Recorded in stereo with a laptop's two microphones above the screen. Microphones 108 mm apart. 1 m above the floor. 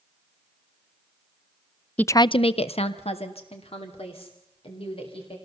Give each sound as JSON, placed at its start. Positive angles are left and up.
{"t": 2.0, "sound": "a woman speaking", "side_deg": 15, "distance_m": 0.5}